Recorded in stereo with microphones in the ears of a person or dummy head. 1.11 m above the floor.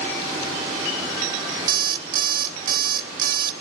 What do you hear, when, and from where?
1.7 s an alarm clock: 50° right (ahead or behind), 0.5 m